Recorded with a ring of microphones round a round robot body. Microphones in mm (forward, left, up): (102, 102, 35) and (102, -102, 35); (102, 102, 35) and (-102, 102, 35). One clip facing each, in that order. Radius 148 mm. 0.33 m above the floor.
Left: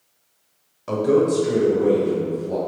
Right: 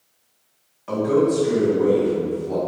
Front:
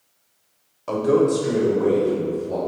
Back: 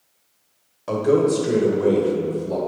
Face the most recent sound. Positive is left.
turn(degrees=175)